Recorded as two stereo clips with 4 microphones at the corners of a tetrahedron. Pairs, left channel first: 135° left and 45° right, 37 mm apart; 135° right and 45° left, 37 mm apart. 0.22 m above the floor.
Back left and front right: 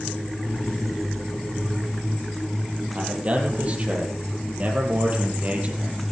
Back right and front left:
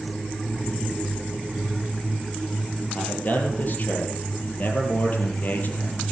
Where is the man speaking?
95° right, 6 m.